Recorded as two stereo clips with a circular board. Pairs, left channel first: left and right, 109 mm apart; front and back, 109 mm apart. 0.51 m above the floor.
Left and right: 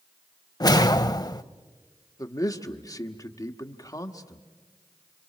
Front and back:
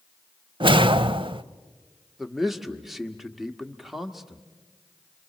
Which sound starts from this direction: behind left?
A whoosh, at 0.6 s.